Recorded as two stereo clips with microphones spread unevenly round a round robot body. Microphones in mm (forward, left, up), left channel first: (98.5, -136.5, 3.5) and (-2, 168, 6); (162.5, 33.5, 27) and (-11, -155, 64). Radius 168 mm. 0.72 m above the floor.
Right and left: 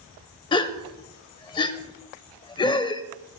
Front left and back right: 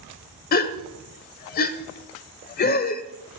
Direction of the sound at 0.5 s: 5° right.